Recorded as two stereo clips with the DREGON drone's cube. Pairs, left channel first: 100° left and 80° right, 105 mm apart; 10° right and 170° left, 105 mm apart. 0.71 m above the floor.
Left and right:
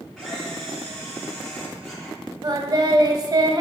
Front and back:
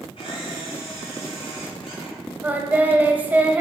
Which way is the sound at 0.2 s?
15° left.